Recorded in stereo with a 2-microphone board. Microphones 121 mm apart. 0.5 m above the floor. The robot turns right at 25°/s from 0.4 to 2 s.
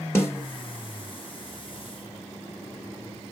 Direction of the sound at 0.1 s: 20° left (ahead or behind).